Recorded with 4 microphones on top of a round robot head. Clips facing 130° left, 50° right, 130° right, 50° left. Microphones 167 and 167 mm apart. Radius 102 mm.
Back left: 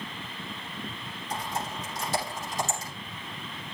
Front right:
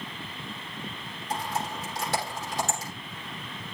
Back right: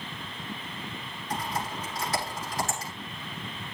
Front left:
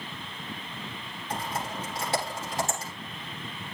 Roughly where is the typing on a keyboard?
Ahead.